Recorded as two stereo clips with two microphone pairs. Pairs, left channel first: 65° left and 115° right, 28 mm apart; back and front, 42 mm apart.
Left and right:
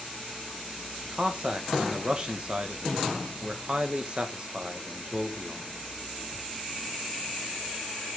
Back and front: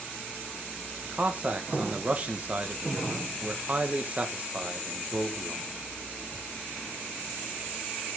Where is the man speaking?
55° right, 1.8 m.